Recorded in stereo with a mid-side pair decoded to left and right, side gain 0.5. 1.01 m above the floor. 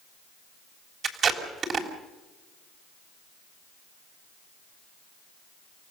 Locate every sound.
1.0 s tape being pulled: 50° right, 3.5 m